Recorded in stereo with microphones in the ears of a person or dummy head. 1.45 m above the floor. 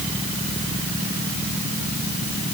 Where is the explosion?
No explosion in this recording.